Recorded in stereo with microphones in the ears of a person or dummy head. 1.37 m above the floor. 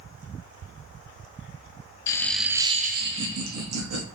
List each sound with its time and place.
2.1 s laughter: 15° left (ahead or behind), 0.7 m; by 4.1 s 70° right (ahead or behind), 1.1 m